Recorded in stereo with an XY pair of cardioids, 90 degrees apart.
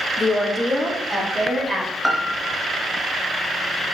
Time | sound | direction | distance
0.2 | a woman speaking | 35° left | 0.7 m
2.0 | a piano | 5° left | 0.7 m